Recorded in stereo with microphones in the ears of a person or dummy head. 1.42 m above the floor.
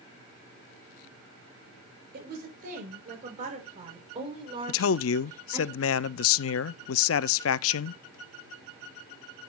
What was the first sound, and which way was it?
A woman speaking, 55° right (ahead or behind).